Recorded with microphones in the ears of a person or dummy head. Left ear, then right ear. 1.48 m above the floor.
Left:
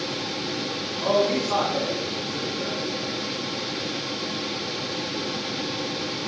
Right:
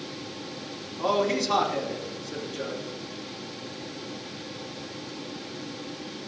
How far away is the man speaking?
About 3 m.